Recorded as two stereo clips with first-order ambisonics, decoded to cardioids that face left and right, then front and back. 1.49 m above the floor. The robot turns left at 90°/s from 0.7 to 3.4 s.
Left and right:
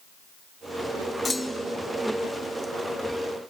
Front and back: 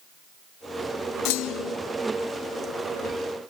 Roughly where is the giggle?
I don't hear a giggle.